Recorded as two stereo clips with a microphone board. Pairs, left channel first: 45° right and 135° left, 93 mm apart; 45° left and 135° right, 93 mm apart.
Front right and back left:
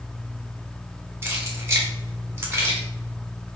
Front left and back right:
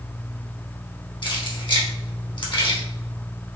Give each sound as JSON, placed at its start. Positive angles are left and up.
{"t": 1.2, "sound": "keys jangling", "azimuth_deg": 75, "distance_m": 1.2}